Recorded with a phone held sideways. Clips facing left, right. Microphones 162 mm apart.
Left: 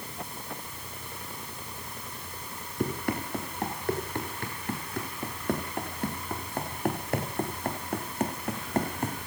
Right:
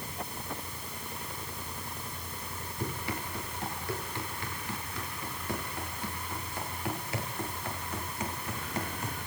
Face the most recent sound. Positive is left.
turn(degrees=50)  # may be behind; listen again after turning